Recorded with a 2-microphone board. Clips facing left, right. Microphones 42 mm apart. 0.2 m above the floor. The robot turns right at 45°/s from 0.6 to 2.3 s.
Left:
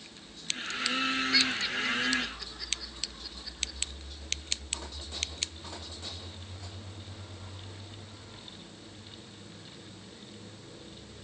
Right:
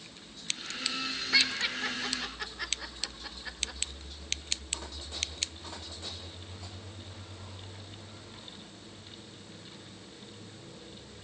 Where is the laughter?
5° left (ahead or behind), 4 m; by 3.8 s 40° right (ahead or behind), 4 m.